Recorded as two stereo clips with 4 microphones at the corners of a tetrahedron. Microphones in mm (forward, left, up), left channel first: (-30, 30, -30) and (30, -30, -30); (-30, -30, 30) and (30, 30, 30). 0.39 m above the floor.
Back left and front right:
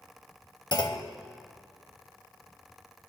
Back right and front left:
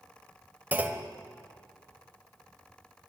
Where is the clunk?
110° left, 0.7 m.